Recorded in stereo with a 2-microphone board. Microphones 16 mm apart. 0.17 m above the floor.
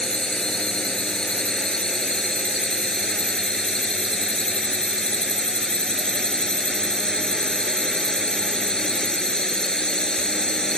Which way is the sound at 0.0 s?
55° left (ahead or behind).